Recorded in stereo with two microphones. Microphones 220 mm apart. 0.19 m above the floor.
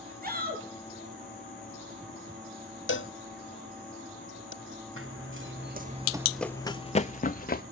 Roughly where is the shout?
Right.